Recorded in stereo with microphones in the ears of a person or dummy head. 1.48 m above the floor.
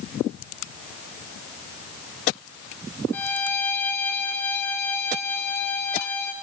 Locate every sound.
3.1 s a violin: 15° left (ahead or behind), 1.2 m